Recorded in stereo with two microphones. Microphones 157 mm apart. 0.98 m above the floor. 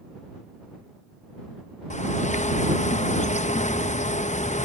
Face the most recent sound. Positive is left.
turn(degrees=55)  # may be behind; listen again after turning